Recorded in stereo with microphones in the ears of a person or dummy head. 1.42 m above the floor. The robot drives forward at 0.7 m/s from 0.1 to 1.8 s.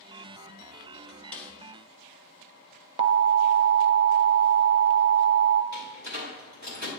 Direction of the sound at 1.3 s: 5° left (ahead or behind).